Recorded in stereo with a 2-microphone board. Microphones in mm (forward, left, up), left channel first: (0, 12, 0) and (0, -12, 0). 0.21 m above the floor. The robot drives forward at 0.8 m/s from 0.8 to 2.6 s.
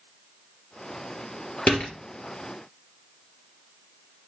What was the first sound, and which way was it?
A door slam, 55° left (ahead or behind).